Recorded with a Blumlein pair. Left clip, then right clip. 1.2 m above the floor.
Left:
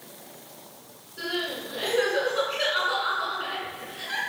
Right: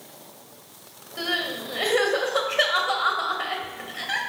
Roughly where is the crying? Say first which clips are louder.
Right 3 dB; ahead right.